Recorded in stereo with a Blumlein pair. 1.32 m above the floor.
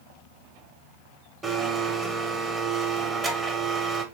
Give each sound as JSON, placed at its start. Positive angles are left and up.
{"t": 1.4, "sound": "a blender", "azimuth_deg": -15, "distance_m": 0.8}